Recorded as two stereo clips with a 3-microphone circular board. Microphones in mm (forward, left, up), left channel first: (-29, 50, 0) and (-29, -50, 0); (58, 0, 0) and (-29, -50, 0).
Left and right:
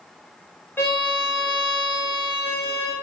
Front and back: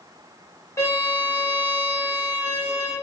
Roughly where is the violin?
Ahead left.